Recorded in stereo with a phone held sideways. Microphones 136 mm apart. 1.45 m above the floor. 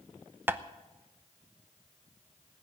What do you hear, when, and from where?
0.5 s tapping: 15° right (ahead or behind), 0.7 m